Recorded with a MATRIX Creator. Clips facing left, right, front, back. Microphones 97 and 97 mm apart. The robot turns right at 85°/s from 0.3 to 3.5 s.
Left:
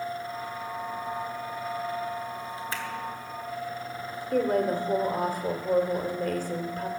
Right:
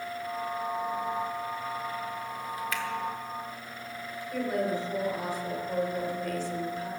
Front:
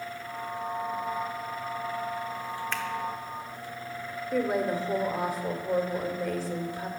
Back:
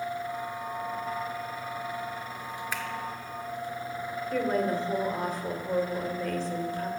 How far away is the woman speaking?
About 1.7 m.